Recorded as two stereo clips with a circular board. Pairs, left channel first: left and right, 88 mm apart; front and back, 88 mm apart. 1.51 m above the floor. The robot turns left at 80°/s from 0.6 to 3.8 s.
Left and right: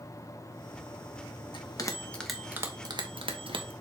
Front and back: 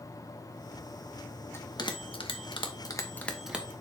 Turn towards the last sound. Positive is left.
turn(degrees=-120)